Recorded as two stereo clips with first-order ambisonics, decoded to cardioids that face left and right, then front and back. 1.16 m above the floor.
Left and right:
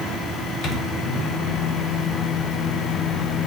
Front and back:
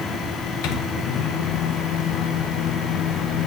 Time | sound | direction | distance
0.6 | a microwave | 30° left | 1.0 m